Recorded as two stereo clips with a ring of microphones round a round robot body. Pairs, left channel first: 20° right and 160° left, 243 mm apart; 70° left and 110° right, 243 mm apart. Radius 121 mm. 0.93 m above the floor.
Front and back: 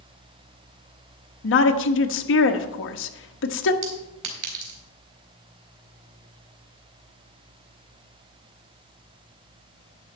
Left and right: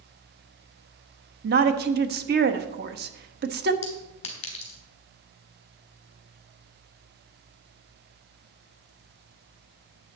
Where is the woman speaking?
60° right, 1.2 m.